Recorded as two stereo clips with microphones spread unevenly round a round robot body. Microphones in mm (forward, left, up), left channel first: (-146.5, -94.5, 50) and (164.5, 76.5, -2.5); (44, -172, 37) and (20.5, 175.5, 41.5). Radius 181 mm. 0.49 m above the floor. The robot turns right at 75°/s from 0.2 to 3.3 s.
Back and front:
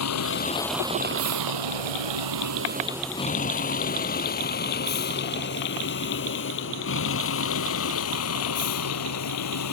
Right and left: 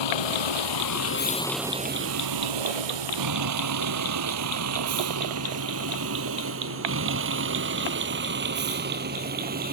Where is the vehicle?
105° right; by 9.7 s 160° left.